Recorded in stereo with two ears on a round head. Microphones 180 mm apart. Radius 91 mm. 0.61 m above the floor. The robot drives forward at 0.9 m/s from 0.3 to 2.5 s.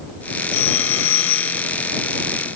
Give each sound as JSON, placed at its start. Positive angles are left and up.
{"t": 0.5, "sound": "a phone ringing", "side_deg": 85}